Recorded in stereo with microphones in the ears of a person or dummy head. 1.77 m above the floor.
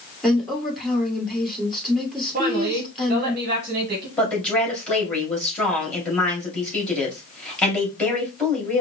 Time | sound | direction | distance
0.2 | a woman speaking | centre (ahead or behind) | 1.8 m
2.3 | a woman speaking | 35° right (ahead or behind) | 1.5 m
4.2 | a woman speaking | 5° left (ahead or behind) | 2.5 m